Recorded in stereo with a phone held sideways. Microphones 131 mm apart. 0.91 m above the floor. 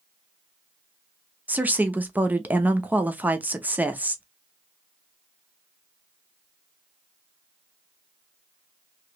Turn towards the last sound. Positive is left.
turn(degrees=-10)  # may be behind; listen again after turning